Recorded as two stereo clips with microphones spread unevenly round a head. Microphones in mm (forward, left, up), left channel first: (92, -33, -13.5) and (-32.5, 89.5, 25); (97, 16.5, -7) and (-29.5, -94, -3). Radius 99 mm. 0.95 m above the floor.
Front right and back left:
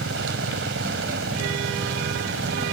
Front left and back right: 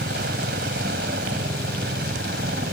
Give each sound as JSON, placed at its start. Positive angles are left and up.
{"t": 0.0, "sound": "a helicopter", "azimuth_deg": 175}